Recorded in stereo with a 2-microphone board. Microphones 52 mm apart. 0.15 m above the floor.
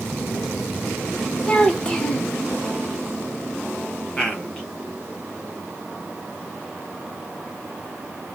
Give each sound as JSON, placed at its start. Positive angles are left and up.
{"t": 1.5, "sound": "a child speaking", "side_deg": 20, "distance_m": 0.7}
{"t": 4.2, "sound": "a man speaking", "side_deg": 20, "distance_m": 1.0}